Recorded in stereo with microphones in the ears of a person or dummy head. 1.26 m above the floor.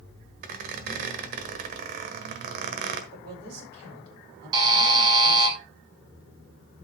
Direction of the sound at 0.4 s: 50° right (ahead or behind).